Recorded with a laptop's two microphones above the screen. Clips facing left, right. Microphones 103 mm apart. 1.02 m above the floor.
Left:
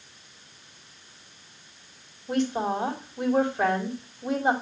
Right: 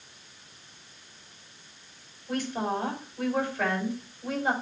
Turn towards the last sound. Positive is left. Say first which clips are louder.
# left 4 dB
turn(degrees=25)  # may be behind; listen again after turning